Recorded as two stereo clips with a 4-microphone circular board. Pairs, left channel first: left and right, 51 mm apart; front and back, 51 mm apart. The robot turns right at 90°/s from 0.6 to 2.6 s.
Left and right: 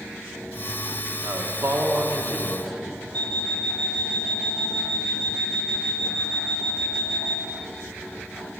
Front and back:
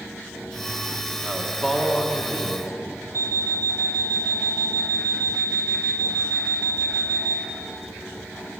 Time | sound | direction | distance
1.2 | a man speaking | 120° right | 1.5 m
3.1 | an alarm clock | 25° left | 1.2 m